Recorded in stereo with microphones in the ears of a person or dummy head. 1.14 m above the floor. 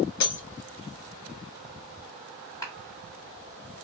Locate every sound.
0.2 s breaking glass: 70° left (ahead or behind), 1.7 m
2.6 s a clap: 15° left (ahead or behind), 1.3 m